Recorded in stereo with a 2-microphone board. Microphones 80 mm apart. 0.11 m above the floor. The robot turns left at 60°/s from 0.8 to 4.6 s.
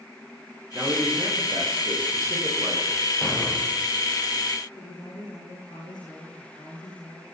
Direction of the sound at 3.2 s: 165° left.